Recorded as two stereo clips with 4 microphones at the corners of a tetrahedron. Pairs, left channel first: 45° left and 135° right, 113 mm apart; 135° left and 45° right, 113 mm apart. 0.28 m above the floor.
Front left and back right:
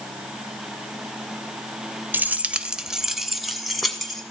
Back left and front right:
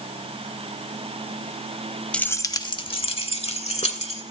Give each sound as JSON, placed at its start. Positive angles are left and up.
{"t": 2.1, "sound": "keys jangling", "azimuth_deg": -170, "distance_m": 0.6}